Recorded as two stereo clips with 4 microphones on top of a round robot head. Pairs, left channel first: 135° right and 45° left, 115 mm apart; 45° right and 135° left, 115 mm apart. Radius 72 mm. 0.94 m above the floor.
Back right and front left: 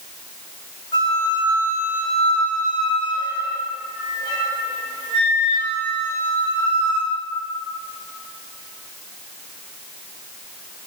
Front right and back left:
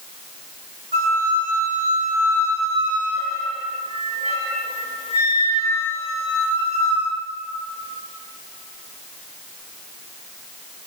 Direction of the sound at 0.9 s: 170° left.